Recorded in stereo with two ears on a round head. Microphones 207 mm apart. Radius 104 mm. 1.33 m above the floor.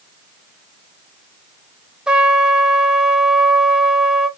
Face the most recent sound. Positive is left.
turn(degrees=-5)  # may be behind; listen again after turning